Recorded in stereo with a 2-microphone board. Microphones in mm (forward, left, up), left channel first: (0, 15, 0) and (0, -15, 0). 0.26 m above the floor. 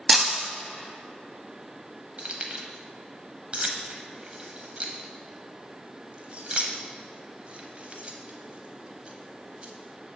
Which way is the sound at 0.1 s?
10° right (ahead or behind).